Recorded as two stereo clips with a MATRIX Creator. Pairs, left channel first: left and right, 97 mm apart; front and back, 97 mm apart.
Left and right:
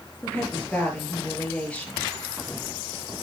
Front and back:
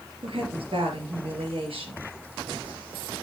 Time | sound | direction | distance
0.2 | a woman speaking | 165° left | 4 m